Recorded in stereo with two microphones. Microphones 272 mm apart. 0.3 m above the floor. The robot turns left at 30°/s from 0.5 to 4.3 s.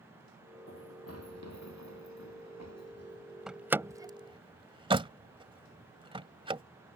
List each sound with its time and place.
0.7 s running footsteps: 50° left (ahead or behind)
3.5 s a door slam: centre (ahead or behind); by 6.6 s 20° right (ahead or behind)